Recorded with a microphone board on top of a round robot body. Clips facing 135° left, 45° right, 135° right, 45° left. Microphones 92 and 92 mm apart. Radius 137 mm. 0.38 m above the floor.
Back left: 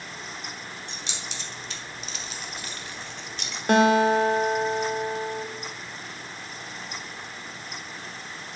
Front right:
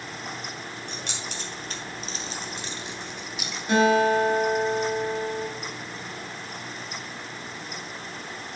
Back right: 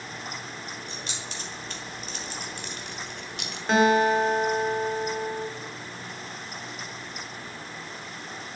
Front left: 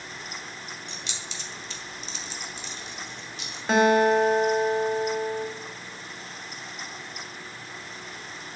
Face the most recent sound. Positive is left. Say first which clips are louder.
# back left 1 dB, front left 1 dB
turn(degrees=135)